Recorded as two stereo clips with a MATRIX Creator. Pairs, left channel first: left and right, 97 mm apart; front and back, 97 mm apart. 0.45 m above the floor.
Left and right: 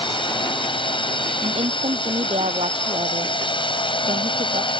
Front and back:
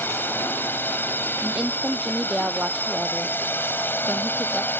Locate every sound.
0.0 s a drone: 70° left
1.4 s a woman speaking: 95° right